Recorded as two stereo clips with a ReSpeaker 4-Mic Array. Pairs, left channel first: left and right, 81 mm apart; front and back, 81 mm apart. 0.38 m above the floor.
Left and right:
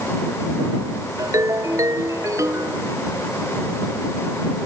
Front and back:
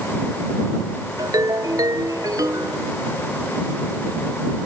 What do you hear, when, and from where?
1.2 s a ringtone: 140° right